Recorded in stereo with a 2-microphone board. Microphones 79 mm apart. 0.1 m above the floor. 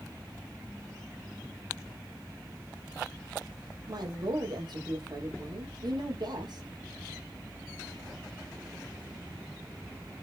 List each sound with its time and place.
3.9 s a woman speaking: 65° right (ahead or behind), 4.5 m